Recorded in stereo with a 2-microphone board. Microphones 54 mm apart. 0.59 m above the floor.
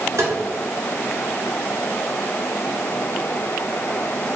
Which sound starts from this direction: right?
Tapping, at 0.2 s.